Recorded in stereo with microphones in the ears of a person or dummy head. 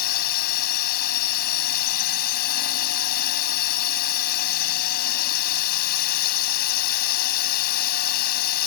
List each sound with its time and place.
0.0 s a drone: 60° left (ahead or behind)